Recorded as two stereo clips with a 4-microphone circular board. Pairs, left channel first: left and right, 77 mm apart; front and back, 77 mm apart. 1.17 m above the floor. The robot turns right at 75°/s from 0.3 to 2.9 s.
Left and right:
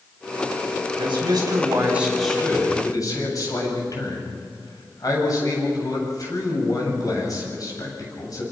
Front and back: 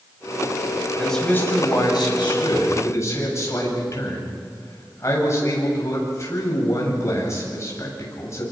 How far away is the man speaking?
About 8.5 m.